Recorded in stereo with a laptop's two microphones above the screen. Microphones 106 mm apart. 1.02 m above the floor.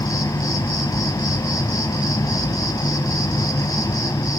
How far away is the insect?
About 1.1 m.